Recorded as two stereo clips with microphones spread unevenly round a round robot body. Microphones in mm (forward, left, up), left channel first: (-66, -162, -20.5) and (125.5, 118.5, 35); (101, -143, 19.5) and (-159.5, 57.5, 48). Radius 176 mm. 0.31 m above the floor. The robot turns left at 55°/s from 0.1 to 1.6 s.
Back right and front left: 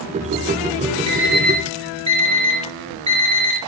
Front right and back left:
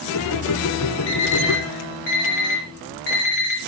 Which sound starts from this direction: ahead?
An alarm clock, at 1.1 s.